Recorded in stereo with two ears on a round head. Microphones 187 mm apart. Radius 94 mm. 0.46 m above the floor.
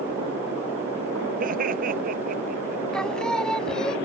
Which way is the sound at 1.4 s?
45° right (ahead or behind).